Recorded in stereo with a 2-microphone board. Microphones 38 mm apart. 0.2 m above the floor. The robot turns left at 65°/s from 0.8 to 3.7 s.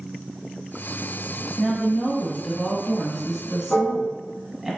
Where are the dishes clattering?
30° left (ahead or behind), 1.0 m.